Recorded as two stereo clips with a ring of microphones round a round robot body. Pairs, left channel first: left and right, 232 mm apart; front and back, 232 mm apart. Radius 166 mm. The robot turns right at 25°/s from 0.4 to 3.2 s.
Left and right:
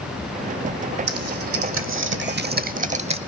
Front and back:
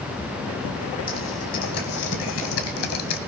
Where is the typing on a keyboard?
75° right, 0.7 m; by 3.2 s 20° right, 0.7 m.